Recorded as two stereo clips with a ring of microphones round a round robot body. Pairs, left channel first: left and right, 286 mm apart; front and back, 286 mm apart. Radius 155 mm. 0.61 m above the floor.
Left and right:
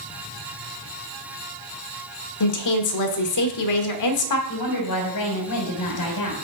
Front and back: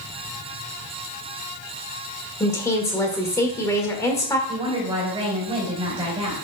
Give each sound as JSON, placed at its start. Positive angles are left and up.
{"t": 2.4, "sound": "a woman speaking", "azimuth_deg": 80, "distance_m": 1.4}
{"t": 4.5, "sound": "a woman speaking", "azimuth_deg": 110, "distance_m": 3.0}